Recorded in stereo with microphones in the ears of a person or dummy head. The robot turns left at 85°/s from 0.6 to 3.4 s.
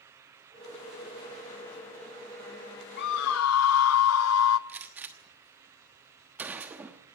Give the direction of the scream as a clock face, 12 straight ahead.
8 o'clock.